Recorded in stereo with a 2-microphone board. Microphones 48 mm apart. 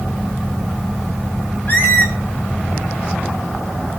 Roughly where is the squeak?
Left.